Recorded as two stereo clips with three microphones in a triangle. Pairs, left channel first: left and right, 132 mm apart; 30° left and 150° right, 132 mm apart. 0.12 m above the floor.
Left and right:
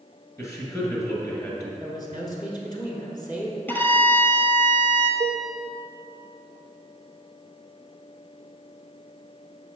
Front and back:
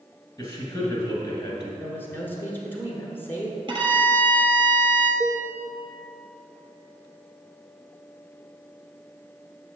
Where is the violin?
165° left, 0.7 m.